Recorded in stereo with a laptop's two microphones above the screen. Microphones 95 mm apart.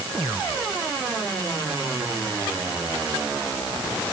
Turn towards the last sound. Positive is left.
No sound to turn to.